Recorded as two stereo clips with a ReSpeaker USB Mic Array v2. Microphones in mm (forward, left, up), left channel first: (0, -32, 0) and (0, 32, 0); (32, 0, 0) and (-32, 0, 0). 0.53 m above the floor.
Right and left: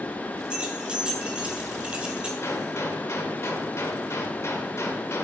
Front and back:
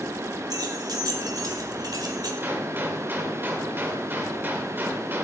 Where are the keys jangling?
165° left, 2.0 m.